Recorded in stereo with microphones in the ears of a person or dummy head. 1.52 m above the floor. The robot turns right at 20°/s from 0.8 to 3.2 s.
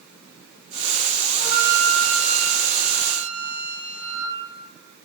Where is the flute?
140° right, 4.5 m; by 4.4 s 100° right, 4.5 m.